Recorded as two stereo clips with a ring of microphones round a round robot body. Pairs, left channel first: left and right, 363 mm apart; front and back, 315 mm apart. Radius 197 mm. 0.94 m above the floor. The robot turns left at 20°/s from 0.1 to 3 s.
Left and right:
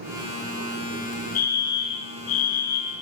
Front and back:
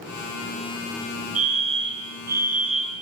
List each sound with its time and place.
1.4 s a fire alarm: 140° left, 5.5 m; by 2.9 s 110° left, 5.5 m